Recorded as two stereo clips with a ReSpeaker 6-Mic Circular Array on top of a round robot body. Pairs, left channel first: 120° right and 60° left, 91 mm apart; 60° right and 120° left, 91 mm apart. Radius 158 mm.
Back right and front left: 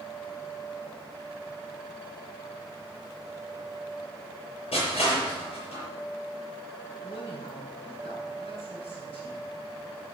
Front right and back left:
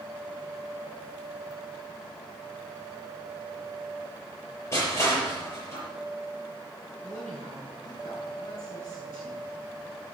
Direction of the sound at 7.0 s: 115° right.